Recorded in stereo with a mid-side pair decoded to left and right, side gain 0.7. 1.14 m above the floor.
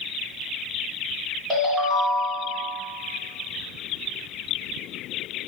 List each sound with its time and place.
1.5 s a ringtone: 25° right, 1.6 m